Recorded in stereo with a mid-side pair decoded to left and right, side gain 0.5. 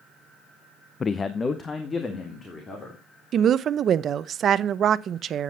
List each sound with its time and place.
1.0 s a man speaking: 35° left, 0.5 m
3.3 s a woman speaking: 50° right, 0.7 m